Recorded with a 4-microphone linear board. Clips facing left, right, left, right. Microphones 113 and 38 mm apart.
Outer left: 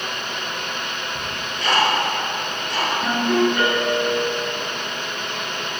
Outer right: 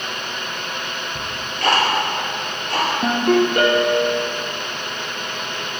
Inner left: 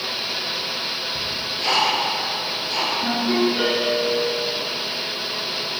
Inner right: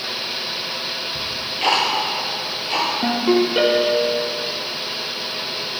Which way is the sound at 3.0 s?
65° right (ahead or behind).